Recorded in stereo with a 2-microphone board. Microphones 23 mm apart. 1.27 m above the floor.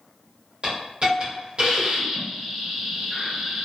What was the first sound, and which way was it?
A hiss, 55° right (ahead or behind).